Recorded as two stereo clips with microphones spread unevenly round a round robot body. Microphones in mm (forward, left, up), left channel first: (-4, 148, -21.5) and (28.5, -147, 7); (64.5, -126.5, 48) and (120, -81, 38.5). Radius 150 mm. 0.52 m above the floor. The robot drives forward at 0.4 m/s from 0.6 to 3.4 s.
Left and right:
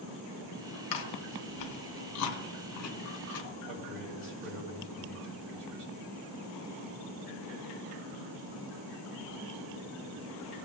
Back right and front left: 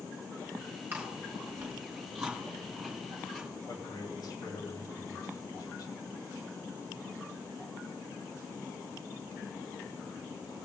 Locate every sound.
0.9 s chewing: 100° left, 1.4 m; by 3.5 s 135° left, 1.9 m
3.7 s a man speaking: 115° right, 2.5 m